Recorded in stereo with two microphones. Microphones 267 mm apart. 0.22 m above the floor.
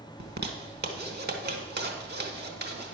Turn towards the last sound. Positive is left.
turn(degrees=-40)  # may be behind; listen again after turning